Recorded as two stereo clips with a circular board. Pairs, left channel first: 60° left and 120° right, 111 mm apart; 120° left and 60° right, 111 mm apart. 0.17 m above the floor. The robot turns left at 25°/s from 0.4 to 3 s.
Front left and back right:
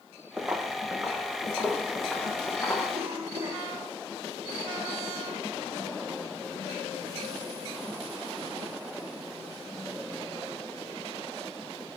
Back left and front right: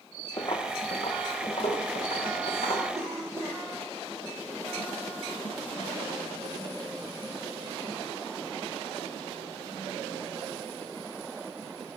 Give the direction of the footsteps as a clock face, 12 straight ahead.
7 o'clock.